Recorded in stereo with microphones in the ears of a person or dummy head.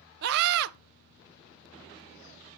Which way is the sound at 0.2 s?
55° right (ahead or behind).